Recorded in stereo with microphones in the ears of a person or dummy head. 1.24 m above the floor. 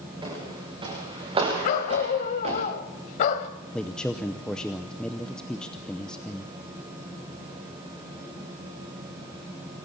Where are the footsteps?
20° right (ahead or behind), 9.5 m; by 2.6 s 30° right (ahead or behind), 8 m.